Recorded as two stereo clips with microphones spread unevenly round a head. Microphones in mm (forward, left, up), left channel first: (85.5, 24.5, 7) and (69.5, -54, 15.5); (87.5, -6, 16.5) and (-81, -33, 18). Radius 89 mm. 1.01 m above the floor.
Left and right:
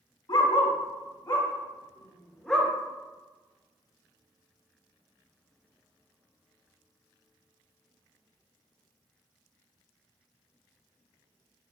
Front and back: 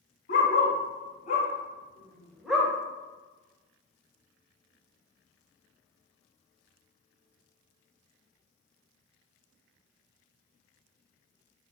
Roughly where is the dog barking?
Ahead left.